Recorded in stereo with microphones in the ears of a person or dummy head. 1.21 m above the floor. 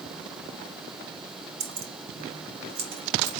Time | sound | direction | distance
1.6 | keys jangling | 80° right | 2 m